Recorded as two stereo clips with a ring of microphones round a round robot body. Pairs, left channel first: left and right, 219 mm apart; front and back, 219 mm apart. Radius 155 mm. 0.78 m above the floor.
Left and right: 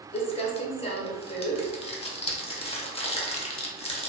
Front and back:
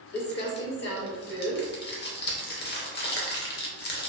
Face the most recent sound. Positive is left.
turn(degrees=30)